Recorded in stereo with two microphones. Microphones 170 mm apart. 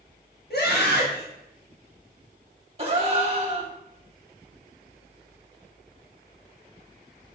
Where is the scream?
70° left (ahead or behind), 1.4 m.